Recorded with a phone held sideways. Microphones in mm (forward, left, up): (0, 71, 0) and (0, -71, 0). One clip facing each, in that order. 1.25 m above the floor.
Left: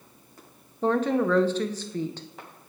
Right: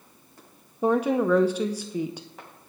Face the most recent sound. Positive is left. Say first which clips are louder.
# right 1 dB
turn(degrees=-10)  # may be behind; listen again after turning